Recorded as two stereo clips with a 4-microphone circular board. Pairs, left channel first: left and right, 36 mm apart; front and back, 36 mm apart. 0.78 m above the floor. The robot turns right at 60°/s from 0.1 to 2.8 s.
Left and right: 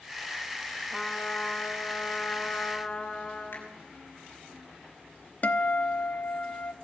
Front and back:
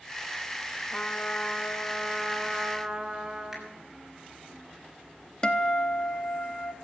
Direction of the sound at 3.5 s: 90° left.